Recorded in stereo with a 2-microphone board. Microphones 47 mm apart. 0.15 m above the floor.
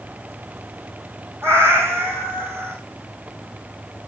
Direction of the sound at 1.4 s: 65° right (ahead or behind).